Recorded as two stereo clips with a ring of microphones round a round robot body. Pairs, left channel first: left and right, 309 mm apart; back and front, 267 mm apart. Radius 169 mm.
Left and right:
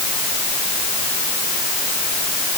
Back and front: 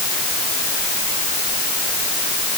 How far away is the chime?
I don't hear a chime.